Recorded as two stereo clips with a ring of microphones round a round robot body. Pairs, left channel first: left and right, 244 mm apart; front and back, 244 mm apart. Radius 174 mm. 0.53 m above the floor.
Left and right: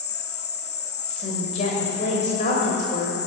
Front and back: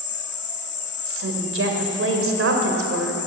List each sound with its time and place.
0.0 s an insect: 45° left, 1.4 m
1.1 s a woman speaking: 155° left, 2.5 m